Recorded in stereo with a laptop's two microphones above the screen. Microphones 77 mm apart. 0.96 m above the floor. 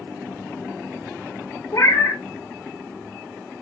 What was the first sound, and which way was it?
A cat meowing, 45° left (ahead or behind).